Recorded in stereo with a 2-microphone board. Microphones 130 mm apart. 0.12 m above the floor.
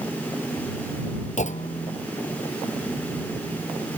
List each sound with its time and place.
1.4 s a clunk: 70° left (ahead or behind)